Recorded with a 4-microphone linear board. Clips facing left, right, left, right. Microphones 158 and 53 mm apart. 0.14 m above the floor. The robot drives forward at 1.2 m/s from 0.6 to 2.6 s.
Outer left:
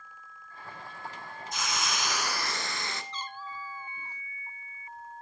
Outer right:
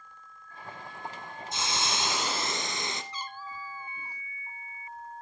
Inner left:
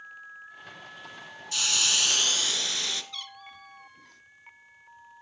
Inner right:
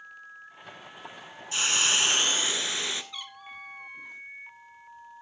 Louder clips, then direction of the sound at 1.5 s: Outer right 1 dB, inner right 3 dB; 25° right (ahead or behind).